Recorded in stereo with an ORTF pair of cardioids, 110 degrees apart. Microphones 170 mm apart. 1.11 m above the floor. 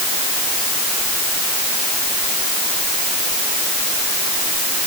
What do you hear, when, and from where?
Only background noise.